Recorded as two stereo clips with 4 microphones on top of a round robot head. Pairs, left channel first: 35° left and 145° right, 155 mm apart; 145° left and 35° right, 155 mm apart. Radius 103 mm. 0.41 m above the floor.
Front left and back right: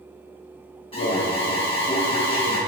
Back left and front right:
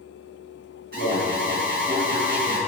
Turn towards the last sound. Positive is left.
turn(degrees=-20)